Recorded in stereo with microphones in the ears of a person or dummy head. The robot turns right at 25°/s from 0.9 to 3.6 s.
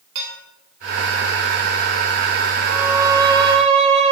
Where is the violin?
Centre (ahead or behind), 1.2 m; by 4.1 s 25° right (ahead or behind), 1.2 m.